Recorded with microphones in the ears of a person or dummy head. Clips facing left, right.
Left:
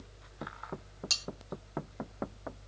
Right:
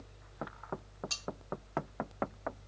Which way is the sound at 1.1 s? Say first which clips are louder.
Left 3 dB; 45° left (ahead or behind).